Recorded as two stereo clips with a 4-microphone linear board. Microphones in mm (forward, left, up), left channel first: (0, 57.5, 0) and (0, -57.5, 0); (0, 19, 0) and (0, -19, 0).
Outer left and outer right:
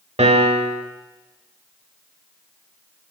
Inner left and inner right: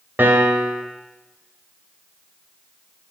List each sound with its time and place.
0.2 s a piano: 65° right (ahead or behind), 0.6 m